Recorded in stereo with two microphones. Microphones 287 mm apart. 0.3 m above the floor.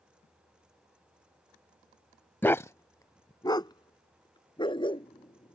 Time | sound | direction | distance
2.4 | a dog barking | 5° left (ahead or behind) | ?